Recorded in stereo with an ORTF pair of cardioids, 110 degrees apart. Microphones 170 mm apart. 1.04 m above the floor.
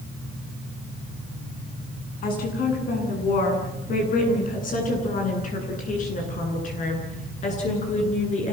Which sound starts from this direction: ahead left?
A woman speaking, at 2.2 s.